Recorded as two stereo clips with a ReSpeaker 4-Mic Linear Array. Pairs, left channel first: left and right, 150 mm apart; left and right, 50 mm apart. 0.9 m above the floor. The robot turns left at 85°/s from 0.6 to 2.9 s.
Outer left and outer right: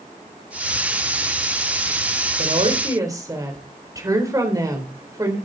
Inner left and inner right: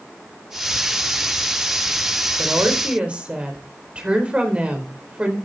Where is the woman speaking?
115° right, 4 m; by 5.4 s 155° right, 4 m.